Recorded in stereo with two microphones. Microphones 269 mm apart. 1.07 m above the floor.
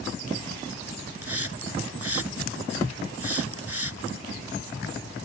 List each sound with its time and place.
1.2 s a hiss: 60° right (ahead or behind)